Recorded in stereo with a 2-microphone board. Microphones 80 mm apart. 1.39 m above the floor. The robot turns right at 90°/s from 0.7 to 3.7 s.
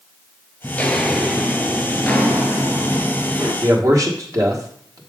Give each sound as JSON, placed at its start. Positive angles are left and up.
{"t": 0.6, "sound": "footsteps", "side_deg": 20, "distance_m": 1.4}
{"t": 3.6, "sound": "a man speaking", "side_deg": -50, "distance_m": 1.4}